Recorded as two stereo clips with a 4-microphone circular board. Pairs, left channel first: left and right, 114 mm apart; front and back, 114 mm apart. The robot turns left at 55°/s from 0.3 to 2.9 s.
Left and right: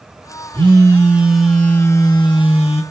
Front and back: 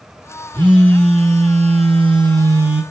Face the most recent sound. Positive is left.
turn(degrees=100)